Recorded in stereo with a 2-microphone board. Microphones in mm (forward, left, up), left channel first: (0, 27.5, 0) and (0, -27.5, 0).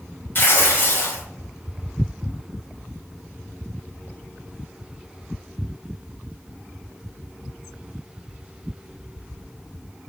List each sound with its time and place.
0.3 s tearing paper: 40° left (ahead or behind), 1.4 m